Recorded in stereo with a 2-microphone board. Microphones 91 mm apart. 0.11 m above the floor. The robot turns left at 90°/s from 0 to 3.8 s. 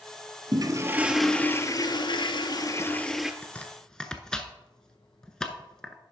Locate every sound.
0.5 s a toilet flushing: 120° right, 0.7 m; by 3.3 s 10° right, 0.7 m
3.4 s chopping: 20° left (ahead or behind), 0.7 m; by 6.0 s 10° left (ahead or behind), 0.7 m